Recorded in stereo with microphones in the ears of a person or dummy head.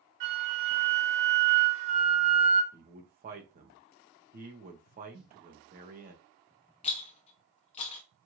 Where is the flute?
60° right (ahead or behind), 1.8 m.